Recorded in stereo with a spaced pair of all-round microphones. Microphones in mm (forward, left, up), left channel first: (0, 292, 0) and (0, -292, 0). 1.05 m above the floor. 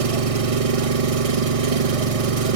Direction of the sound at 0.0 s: 70° right (ahead or behind).